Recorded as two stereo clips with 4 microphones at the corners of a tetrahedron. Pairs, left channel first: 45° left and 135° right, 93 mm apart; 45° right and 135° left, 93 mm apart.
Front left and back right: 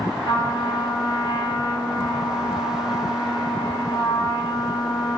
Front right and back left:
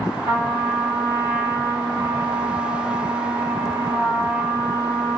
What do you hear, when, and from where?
0.2 s a trumpet: 70° left, 1.4 m